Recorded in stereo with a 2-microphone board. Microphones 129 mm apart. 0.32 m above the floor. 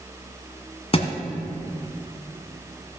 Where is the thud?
50° left (ahead or behind), 1.1 m.